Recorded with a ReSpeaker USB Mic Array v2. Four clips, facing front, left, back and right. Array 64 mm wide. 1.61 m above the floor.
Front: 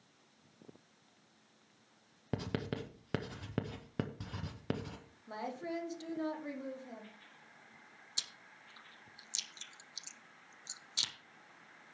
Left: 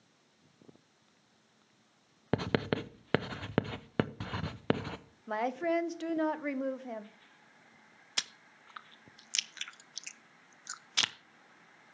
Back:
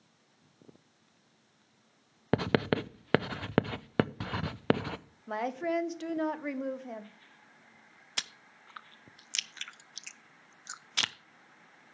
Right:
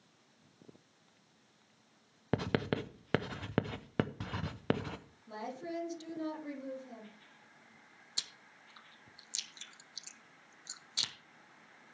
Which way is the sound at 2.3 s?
170° left.